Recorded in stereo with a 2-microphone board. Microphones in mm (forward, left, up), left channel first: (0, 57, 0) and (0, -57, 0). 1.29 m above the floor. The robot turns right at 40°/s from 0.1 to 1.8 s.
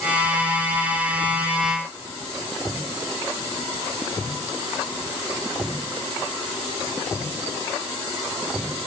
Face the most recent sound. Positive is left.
No sound to turn to.